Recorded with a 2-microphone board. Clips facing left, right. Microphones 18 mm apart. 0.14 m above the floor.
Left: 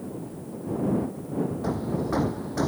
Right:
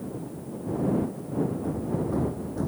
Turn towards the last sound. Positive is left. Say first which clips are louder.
# left 1 dB
turn(degrees=70)  # may be behind; listen again after turning